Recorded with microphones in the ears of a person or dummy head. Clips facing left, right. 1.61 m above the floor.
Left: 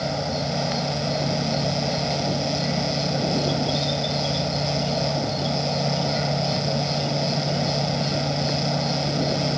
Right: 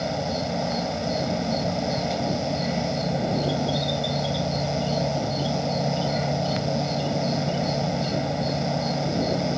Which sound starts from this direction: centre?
An insect, at 0.0 s.